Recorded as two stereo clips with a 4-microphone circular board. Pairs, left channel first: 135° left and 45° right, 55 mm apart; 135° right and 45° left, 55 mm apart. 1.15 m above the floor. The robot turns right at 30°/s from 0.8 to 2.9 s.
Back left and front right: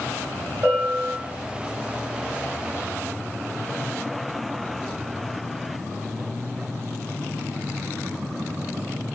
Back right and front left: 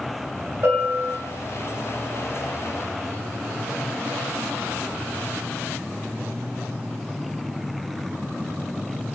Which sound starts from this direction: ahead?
A bell, at 0.6 s.